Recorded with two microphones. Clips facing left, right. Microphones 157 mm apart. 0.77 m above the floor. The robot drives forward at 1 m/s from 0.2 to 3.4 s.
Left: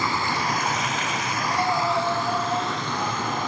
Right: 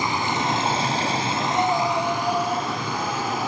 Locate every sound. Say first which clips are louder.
0.0 s running water: right 2 dB; 20° right (ahead or behind), 1.0 m; by 3.5 s 10° right (ahead or behind), 2.5 m
1.4 s breathing: right 2 dB; 30° right (ahead or behind), 7.5 m; by 3.5 s 40° right (ahead or behind), 6 m